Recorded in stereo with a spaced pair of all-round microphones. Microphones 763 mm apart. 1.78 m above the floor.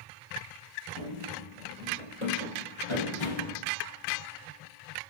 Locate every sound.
0.9 s running footsteps: 40° left (ahead or behind), 2 m; by 3.6 s 35° left (ahead or behind), 4.5 m